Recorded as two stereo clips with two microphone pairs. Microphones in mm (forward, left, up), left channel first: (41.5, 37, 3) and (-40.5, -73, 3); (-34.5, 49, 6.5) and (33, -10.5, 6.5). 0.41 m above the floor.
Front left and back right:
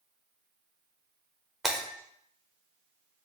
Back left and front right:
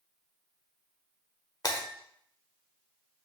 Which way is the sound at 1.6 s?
145° left.